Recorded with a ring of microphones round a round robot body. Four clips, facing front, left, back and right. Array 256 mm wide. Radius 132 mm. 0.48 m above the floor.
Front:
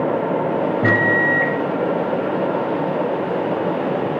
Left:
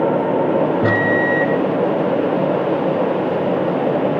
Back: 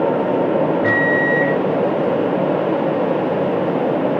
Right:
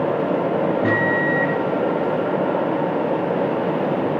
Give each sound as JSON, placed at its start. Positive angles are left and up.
{"t": 0.8, "sound": "a microwave", "azimuth_deg": 60, "distance_m": 2.0}